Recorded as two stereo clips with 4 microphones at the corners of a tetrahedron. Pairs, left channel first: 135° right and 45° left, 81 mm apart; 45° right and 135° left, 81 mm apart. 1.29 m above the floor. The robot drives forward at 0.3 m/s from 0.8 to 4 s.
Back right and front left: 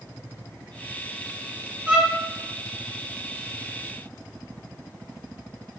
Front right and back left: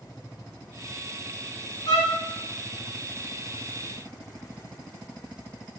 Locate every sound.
1.9 s a violin: 25° right, 0.7 m; by 2.1 s 30° right, 0.6 m